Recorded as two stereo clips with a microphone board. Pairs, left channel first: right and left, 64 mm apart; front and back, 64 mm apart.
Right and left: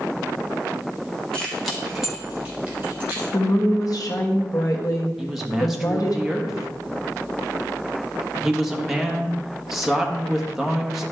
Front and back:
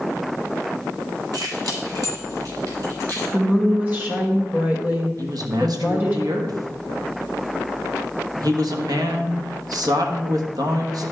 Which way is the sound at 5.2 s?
175° left.